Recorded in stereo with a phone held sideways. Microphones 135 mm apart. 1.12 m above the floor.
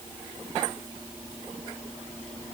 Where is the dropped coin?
I don't hear a dropped coin.